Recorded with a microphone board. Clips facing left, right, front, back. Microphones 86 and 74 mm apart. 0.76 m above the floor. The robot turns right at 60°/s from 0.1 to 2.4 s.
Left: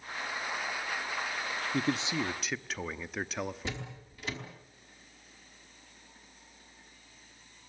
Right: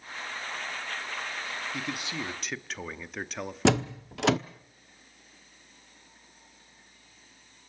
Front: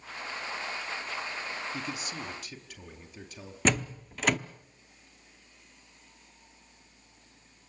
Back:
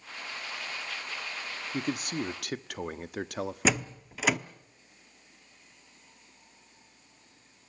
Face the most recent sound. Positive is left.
turn(degrees=-95)